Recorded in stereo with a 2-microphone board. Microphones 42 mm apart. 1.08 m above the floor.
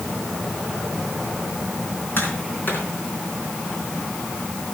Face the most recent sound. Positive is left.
turn(degrees=55)  # may be behind; listen again after turning